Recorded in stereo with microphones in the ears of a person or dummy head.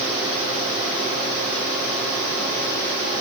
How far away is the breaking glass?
I don't hear breaking glass.